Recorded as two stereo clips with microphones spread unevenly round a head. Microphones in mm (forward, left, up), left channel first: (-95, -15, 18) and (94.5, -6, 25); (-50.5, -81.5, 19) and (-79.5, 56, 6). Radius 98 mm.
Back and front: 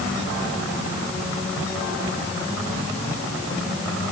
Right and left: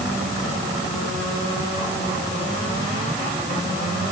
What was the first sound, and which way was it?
Only background noise.